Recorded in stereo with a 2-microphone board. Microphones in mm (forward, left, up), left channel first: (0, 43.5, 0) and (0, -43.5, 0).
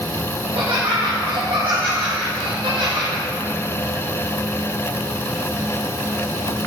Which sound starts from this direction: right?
Laughter, at 0.4 s.